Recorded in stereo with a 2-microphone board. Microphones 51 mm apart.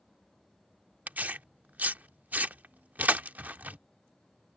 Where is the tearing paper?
35° right (ahead or behind).